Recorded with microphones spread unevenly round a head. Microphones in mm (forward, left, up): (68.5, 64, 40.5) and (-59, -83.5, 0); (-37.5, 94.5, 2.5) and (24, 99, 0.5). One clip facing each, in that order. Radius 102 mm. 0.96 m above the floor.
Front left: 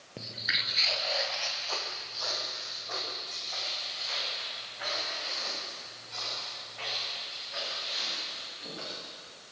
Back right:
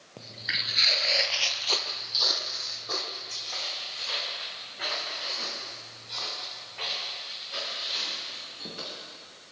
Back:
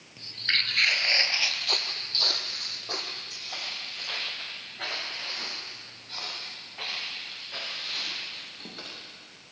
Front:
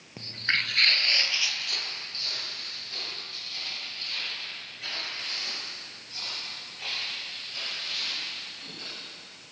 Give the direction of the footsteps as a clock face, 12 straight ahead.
12 o'clock.